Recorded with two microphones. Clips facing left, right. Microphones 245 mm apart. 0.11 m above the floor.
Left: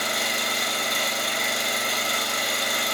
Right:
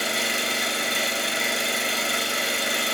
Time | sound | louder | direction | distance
0.0 | an engine running | right 2 dB | 30° right (ahead or behind) | 1.4 m